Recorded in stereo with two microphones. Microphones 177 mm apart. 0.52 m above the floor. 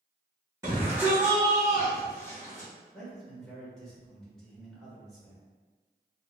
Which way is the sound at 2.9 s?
5° left (ahead or behind).